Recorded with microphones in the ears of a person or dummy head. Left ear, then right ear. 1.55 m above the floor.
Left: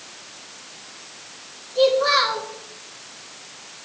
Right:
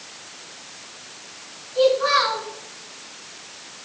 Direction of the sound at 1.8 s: 5° left (ahead or behind).